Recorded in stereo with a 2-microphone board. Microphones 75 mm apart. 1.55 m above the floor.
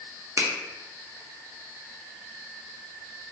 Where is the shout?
No shout in this recording.